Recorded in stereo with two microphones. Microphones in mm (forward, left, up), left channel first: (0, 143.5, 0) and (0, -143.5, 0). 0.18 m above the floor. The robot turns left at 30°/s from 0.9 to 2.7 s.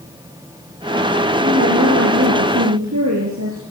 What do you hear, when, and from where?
1.4 s a woman speaking: 45° right, 3.5 m; by 3.6 s 85° right, 3.5 m